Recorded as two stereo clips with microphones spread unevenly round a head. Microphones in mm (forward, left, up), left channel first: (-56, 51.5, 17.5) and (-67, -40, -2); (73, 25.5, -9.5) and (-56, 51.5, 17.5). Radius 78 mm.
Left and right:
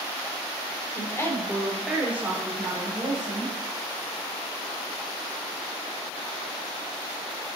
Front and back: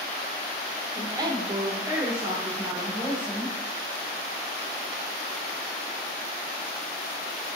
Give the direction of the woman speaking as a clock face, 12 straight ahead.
8 o'clock.